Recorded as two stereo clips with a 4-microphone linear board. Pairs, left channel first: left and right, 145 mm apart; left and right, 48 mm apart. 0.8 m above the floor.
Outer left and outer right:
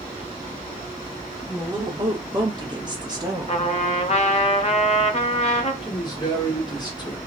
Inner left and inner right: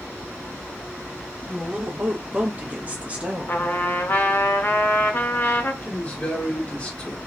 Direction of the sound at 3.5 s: 45° left (ahead or behind).